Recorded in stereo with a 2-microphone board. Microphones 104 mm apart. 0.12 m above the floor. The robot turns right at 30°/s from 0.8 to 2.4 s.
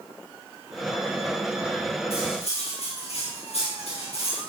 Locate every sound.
2.1 s cutlery clinking: 65° left (ahead or behind), 5 m; by 4.5 s 75° left (ahead or behind), 5 m